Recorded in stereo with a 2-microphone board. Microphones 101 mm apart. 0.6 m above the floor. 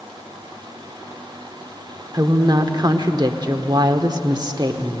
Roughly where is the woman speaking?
Right.